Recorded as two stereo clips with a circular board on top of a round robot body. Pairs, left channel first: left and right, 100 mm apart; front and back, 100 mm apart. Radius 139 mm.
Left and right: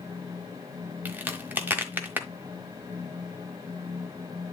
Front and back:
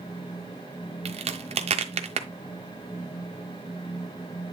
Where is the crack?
165° right, 1.2 m.